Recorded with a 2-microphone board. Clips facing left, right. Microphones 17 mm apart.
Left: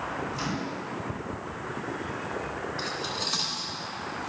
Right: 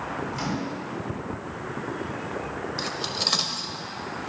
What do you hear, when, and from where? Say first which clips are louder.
0.3 s a microwave: right 2 dB; 25° right (ahead or behind), 3 m
2.8 s cutlery clinking: right 5 dB; 50° right (ahead or behind), 0.8 m